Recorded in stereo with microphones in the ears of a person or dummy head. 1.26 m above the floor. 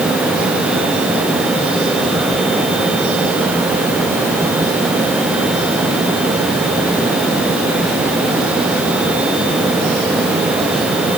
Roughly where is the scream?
No scream in this recording.